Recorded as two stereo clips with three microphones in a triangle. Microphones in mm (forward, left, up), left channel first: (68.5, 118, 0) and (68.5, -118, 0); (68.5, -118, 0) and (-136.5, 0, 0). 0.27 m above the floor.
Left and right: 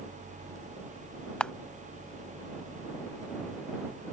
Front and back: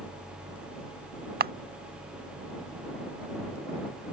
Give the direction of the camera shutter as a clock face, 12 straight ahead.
6 o'clock.